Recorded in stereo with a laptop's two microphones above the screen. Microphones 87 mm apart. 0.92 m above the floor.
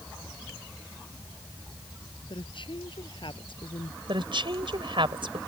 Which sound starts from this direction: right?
A woman speaking, at 4.1 s.